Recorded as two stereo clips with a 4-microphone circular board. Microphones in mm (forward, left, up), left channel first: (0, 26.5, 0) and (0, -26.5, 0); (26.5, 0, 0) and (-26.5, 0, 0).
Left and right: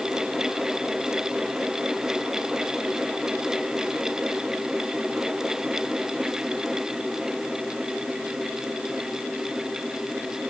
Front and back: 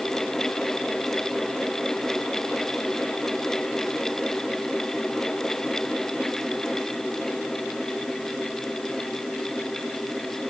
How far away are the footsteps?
I don't hear footsteps.